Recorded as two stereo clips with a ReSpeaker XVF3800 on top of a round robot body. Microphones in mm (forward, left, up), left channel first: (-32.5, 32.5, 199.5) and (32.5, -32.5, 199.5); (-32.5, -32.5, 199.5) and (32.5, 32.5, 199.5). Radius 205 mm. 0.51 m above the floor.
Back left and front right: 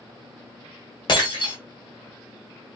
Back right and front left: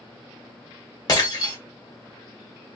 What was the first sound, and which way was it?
Breaking glass, 175° left.